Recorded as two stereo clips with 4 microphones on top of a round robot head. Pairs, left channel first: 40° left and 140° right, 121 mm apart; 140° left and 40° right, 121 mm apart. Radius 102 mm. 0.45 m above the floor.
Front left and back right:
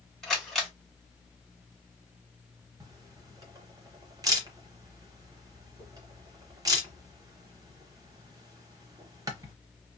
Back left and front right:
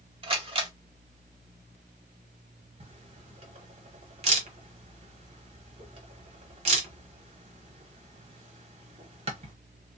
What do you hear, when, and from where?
0.2 s a camera shutter: 45° right, 1.6 m
2.8 s a camera shutter: 80° right, 0.9 m